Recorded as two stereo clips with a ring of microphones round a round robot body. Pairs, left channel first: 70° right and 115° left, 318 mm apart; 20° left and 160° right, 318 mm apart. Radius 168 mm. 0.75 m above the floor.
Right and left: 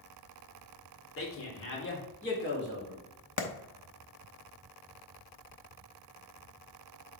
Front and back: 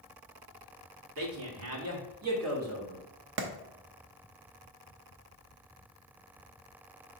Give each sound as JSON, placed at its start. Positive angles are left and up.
{"t": 1.2, "sound": "a man speaking", "azimuth_deg": -115, "distance_m": 2.5}
{"t": 3.4, "sound": "a clap", "azimuth_deg": -105, "distance_m": 0.9}